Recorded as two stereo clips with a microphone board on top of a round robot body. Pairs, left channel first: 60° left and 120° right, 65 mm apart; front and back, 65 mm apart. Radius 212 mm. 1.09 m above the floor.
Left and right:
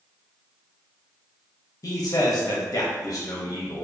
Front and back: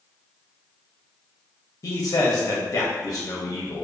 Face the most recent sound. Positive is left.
turn(degrees=30)